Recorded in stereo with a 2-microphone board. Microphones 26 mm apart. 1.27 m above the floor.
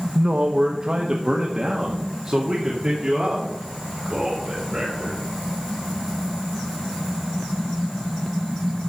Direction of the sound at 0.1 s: 55° right (ahead or behind).